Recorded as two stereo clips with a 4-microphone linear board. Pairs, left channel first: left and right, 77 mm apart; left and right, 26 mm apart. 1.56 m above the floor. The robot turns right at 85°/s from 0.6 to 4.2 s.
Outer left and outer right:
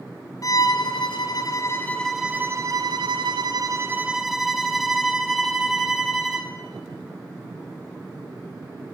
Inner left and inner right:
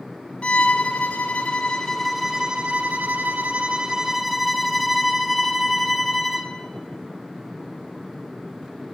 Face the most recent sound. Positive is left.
turn(degrees=-5)